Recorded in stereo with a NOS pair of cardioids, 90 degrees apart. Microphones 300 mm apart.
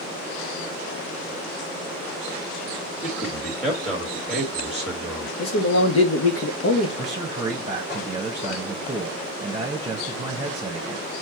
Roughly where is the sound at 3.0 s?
Ahead.